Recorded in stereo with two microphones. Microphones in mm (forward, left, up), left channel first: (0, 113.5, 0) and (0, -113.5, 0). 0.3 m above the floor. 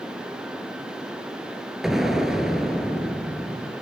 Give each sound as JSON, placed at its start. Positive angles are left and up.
{"t": 1.8, "sound": "an explosion", "side_deg": 0, "distance_m": 0.7}